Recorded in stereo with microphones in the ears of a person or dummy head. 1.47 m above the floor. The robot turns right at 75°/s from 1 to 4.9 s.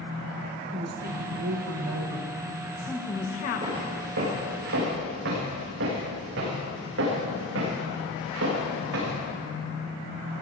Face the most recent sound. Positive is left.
turn(degrees=-70)  # may be behind; listen again after turning